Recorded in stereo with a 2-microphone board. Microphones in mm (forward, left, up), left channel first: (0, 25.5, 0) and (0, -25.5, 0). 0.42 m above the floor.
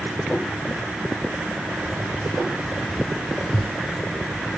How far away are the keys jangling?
About 0.8 m.